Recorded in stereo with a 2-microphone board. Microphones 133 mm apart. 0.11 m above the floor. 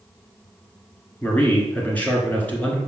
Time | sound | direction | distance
1.2 | a man speaking | 10° left (ahead or behind) | 1.8 m